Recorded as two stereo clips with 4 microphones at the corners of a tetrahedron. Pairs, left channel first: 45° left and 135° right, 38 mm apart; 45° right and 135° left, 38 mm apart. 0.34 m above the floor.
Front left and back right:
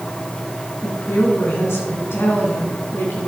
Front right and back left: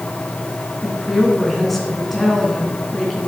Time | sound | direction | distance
0.8 | a woman speaking | 45° left | 3.5 m